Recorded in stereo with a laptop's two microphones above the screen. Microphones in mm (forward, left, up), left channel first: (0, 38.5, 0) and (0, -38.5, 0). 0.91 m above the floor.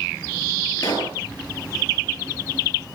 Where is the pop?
50° left (ahead or behind), 8 m.